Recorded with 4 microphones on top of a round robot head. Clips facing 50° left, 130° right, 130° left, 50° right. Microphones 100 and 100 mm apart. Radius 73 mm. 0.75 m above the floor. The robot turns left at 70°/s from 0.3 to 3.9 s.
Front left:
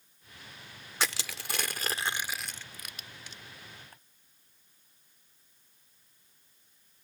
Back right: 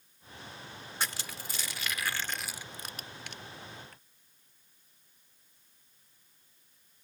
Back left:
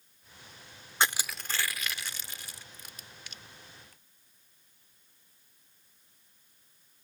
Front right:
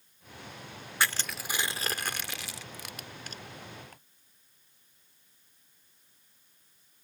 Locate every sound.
1.0 s crushing: 60° left; by 3.4 s 110° right
3.9 s ticking: 10° right